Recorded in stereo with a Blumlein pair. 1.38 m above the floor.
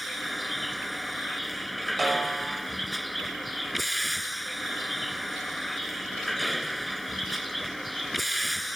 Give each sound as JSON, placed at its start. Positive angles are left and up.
{"t": 0.0, "sound": "a vehicle", "azimuth_deg": 0}
{"t": 2.0, "sound": "a snare drum", "azimuth_deg": -10}